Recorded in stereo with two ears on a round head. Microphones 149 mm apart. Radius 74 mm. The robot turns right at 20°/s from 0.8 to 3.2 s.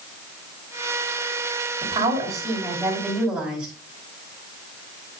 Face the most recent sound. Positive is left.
turn(degrees=-5)  # may be behind; listen again after turning